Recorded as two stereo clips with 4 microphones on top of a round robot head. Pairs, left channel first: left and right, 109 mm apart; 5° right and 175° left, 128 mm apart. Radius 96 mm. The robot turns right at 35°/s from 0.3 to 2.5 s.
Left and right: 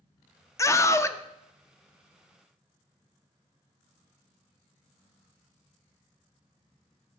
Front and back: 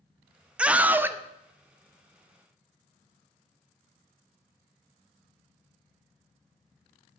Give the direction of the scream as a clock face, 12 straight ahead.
9 o'clock.